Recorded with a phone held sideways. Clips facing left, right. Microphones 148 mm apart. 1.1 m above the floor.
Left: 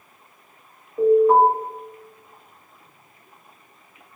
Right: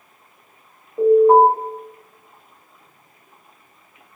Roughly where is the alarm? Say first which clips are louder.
Right 3 dB; right.